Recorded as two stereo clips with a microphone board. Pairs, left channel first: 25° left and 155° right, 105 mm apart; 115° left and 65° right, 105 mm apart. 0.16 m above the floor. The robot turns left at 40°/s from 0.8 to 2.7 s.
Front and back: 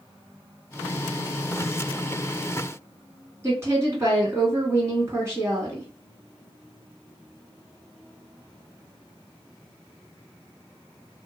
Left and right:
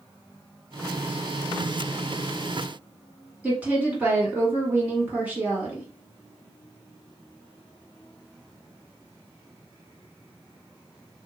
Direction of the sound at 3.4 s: 130° right.